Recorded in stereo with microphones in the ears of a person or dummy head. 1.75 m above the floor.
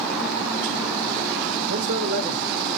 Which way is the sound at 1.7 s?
60° right (ahead or behind).